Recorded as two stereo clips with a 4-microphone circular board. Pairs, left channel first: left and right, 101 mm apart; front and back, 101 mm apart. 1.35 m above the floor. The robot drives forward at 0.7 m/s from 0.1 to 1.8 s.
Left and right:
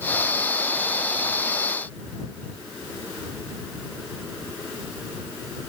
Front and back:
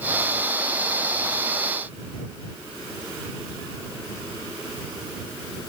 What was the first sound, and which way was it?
Only background noise.